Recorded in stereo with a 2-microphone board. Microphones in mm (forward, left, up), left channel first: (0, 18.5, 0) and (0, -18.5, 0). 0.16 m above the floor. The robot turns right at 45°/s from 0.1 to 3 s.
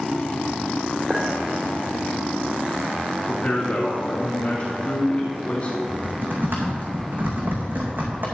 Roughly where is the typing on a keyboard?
Right.